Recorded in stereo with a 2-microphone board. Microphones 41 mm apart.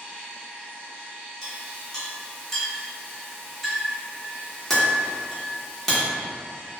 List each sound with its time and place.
1.4 s a clink: 5° left (ahead or behind), 0.9 m